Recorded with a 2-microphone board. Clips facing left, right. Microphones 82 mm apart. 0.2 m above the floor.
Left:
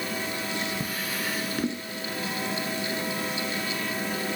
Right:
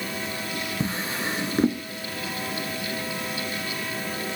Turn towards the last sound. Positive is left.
turn(degrees=-30)  # may be behind; listen again after turning